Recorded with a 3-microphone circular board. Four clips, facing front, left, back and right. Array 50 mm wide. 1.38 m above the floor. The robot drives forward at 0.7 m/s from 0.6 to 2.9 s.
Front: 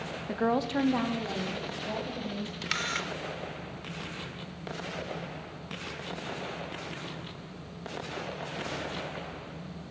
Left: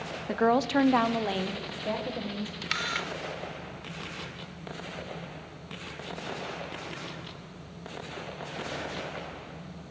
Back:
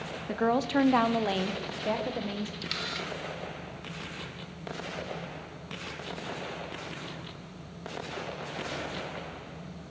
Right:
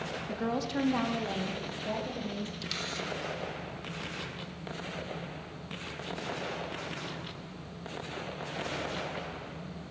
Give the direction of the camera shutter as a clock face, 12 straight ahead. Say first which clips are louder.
Left 5 dB, front 3 dB; 10 o'clock.